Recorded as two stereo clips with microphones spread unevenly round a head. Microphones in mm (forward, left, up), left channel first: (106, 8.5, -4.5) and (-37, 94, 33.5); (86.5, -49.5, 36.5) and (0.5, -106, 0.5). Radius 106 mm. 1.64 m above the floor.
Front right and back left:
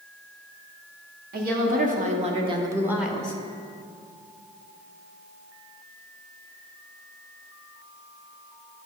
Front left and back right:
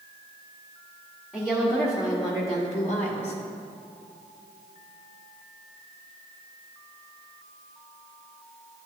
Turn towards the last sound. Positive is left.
turn(degrees=50)